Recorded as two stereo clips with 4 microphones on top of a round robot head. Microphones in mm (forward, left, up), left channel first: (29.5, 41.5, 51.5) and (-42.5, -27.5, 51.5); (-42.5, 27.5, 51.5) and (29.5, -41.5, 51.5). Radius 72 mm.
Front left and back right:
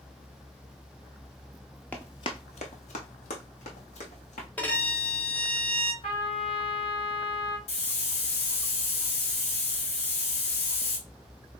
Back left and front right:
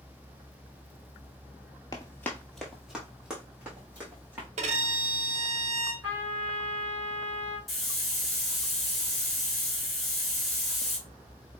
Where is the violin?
35° right, 0.9 m.